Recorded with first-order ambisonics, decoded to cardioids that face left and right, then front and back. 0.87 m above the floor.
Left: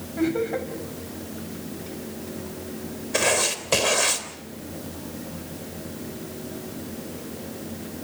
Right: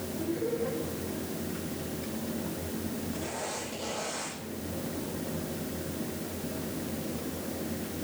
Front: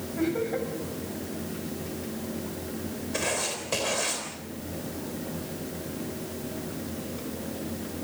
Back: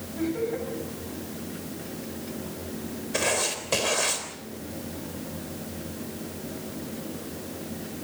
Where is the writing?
105° left, 3.5 m.